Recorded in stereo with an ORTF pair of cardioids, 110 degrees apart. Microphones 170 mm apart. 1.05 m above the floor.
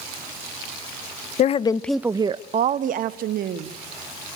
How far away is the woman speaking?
About 0.6 m.